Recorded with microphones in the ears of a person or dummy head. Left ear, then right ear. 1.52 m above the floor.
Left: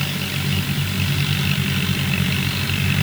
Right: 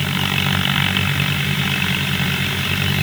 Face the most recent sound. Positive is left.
No sound to turn to.